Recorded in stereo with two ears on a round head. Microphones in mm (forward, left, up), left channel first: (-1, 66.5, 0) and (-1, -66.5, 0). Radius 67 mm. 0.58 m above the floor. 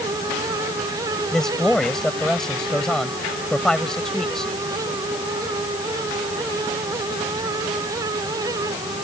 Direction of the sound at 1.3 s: 5° left (ahead or behind).